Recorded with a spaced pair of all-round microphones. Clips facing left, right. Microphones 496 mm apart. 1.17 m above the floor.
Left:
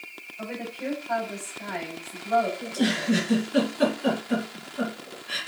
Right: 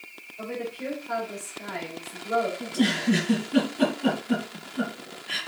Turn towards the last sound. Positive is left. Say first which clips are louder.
# right 1 dB
turn(degrees=-80)